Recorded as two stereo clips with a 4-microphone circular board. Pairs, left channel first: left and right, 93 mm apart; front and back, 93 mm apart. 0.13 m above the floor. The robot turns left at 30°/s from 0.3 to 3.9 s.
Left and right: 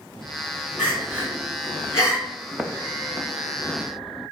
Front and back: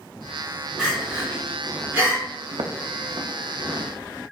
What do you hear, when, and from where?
0.8 s crying: 125° right, 1.2 m; by 2.2 s 170° right, 1.2 m
2.5 s footsteps: 170° right, 0.5 m; by 3.8 s 140° left, 1.5 m